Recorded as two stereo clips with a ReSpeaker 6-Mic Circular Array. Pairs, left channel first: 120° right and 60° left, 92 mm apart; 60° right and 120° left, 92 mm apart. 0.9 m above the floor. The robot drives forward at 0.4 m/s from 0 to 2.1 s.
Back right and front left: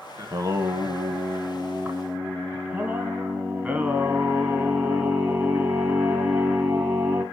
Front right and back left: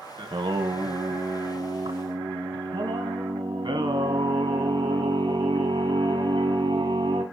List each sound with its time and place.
0.2 s singing: 105° left, 1.3 m; by 7.2 s 130° left, 1.6 m